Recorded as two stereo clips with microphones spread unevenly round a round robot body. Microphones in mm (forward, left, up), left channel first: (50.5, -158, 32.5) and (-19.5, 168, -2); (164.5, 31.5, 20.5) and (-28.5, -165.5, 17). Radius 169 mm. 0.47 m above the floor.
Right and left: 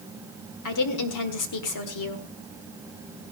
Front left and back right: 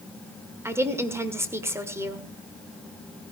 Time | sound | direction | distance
0.7 | a woman speaking | 55° right | 1.7 m